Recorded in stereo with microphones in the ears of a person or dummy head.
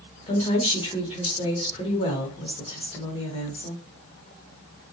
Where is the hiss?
I don't hear a hiss.